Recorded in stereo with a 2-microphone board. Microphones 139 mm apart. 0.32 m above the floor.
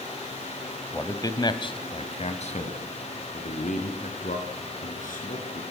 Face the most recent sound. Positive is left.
turn(degrees=75)  # may be behind; listen again after turning